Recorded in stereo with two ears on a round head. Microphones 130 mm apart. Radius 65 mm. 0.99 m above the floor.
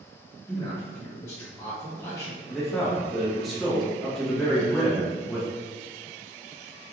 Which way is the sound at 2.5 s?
Centre (ahead or behind).